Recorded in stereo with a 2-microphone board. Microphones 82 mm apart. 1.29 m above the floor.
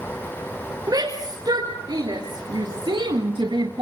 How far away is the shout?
About 4.5 m.